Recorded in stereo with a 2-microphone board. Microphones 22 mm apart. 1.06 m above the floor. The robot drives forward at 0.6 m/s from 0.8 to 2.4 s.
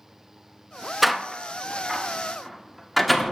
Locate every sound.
1.0 s a door slam: centre (ahead or behind), 0.8 m